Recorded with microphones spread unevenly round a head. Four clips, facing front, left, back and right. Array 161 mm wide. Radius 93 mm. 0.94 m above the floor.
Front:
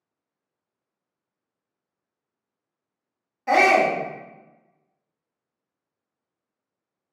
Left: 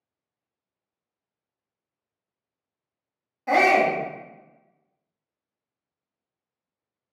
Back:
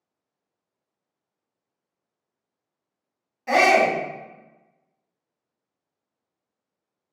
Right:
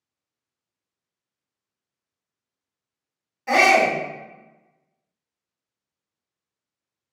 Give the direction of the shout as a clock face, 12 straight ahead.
11 o'clock.